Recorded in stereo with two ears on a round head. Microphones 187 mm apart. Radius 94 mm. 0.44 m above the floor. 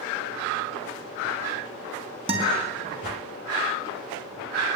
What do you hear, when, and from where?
2.3 s a guitar: 30° right (ahead or behind), 4.5 m